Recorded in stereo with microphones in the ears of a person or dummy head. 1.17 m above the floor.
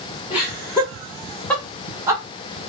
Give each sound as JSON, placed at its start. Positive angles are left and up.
{"t": 0.3, "sound": "laughter", "side_deg": 25, "distance_m": 1.4}